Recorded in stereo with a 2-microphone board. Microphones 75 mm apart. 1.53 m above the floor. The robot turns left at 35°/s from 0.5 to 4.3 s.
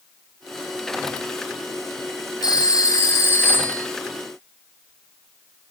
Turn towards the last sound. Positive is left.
turn(degrees=0)